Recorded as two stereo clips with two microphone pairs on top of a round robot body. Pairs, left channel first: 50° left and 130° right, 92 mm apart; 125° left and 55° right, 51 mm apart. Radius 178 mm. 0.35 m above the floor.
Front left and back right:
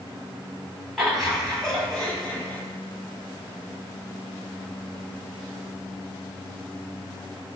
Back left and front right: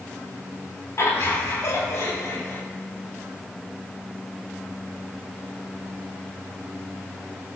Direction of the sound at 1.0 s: 140° left.